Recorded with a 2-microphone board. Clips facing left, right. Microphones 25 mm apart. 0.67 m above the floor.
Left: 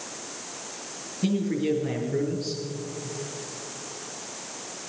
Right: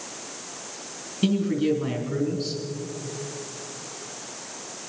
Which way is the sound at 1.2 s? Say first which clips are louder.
Right 3 dB; 75° right (ahead or behind).